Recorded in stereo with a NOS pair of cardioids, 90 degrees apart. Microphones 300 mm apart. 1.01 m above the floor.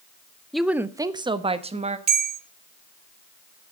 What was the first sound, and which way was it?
A woman speaking, straight ahead.